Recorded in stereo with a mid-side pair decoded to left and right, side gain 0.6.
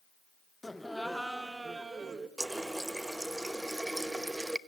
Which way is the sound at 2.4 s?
10° right.